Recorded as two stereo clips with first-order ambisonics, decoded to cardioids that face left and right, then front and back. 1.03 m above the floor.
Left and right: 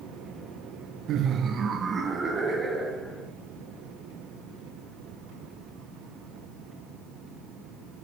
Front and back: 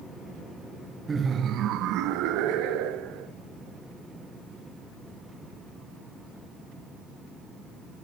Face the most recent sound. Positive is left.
turn(degrees=-170)